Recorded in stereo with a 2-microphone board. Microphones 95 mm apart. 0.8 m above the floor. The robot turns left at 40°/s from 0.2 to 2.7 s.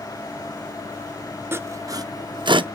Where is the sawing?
25° right (ahead or behind), 0.6 m; by 2.6 s 70° right (ahead or behind), 0.6 m.